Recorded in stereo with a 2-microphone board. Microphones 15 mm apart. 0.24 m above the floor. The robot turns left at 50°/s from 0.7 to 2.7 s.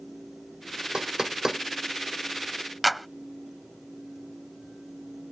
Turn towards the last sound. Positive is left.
turn(degrees=-5)  # may be behind; listen again after turning